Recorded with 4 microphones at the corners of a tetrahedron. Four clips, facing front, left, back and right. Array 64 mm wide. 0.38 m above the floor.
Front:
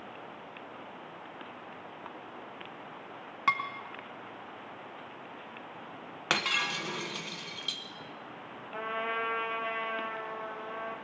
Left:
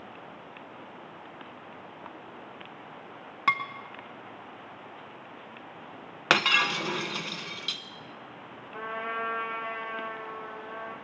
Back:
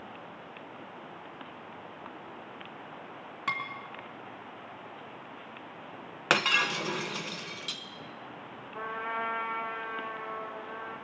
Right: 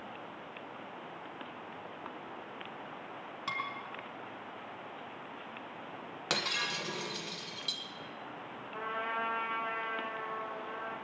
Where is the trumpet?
10° left, 3 m.